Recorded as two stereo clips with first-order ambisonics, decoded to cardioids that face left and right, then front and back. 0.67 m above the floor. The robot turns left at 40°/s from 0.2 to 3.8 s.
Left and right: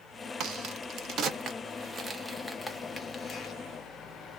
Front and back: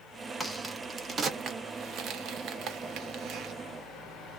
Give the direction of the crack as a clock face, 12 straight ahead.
3 o'clock.